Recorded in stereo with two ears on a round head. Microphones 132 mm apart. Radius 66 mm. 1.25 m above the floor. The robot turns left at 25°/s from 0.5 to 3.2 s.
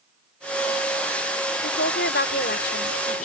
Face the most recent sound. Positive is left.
turn(degrees=55)